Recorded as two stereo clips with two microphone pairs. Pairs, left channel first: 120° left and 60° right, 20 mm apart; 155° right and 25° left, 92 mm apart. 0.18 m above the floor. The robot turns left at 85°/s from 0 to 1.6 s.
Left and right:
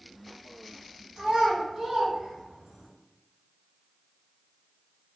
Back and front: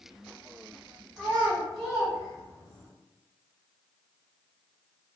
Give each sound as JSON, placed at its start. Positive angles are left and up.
{"t": 1.2, "sound": "a child speaking", "azimuth_deg": -45, "distance_m": 0.8}